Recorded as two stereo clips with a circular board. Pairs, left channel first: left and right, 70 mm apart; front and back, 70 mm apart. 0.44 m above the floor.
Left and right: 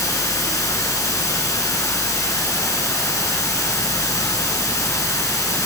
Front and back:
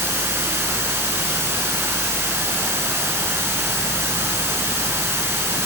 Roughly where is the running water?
Behind left.